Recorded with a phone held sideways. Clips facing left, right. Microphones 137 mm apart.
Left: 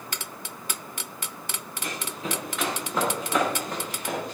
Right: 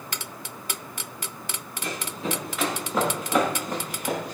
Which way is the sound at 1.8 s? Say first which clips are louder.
Right 3 dB; centre (ahead or behind).